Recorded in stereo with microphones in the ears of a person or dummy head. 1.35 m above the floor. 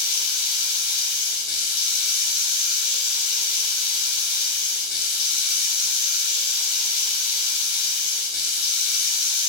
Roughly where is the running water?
Left.